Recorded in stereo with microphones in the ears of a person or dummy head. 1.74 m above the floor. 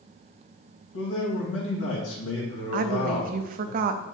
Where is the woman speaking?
50° right (ahead or behind), 0.6 m.